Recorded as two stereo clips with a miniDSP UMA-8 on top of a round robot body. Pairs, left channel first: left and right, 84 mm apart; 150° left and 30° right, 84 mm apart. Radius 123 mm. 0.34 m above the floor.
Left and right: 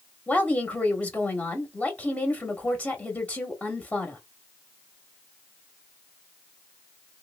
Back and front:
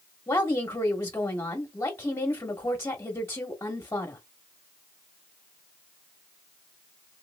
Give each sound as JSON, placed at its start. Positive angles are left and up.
{"t": 0.3, "sound": "a woman speaking", "azimuth_deg": 145, "distance_m": 1.0}